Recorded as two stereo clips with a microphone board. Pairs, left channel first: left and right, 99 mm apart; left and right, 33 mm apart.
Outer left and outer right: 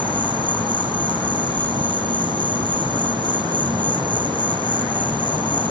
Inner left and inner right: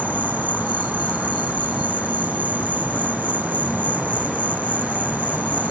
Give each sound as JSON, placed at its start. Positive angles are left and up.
{"t": 0.0, "sound": "an insect", "side_deg": -50}